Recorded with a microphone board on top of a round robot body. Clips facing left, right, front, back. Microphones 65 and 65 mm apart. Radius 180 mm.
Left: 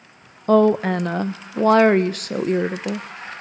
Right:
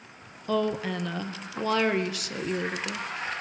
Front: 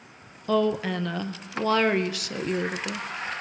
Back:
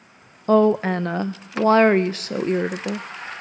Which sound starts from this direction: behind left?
A woman speaking, at 0.5 s.